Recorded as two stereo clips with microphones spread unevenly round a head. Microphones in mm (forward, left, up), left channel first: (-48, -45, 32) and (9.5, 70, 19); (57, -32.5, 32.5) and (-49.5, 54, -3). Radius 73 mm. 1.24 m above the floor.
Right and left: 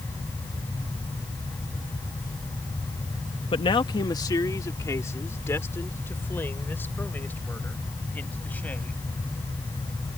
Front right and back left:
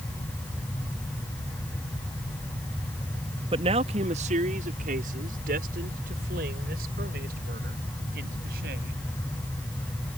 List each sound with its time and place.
3.5 s a man speaking: 165° right; by 9.0 s 165° left